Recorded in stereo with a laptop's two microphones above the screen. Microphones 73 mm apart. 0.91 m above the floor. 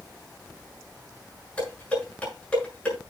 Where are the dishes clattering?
15° left (ahead or behind), 7 m.